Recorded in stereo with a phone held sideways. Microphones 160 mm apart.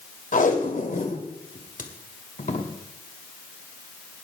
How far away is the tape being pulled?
About 1.8 m.